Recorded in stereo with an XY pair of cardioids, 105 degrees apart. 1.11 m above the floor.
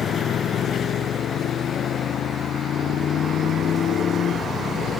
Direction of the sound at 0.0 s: 60° left.